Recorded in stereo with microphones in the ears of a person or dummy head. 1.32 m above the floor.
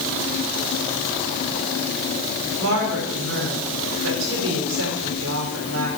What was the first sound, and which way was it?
A woman speaking, 70° right (ahead or behind).